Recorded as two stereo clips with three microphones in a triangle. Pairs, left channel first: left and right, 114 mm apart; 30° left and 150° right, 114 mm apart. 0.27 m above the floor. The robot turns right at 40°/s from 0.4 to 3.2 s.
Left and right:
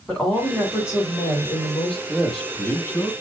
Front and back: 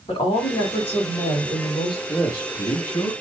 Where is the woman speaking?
10° left, 2 m; by 2.0 s 75° left, 2 m.